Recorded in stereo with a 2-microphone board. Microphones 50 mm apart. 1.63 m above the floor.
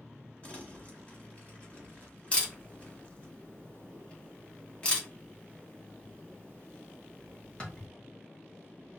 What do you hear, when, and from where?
0.4 s crumpling: 30° left (ahead or behind), 1.2 m
2.3 s a camera shutter: 25° left (ahead or behind), 1.1 m